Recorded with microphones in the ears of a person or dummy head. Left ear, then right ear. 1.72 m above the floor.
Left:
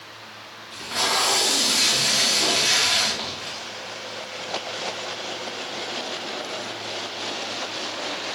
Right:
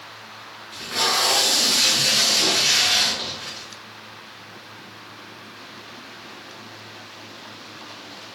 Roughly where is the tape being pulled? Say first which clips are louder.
Right 1 dB; centre.